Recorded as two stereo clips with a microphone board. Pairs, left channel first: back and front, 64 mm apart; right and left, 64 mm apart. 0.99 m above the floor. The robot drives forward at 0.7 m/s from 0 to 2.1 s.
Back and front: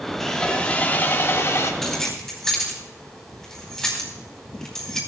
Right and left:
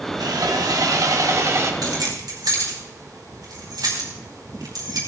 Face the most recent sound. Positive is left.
turn(degrees=95)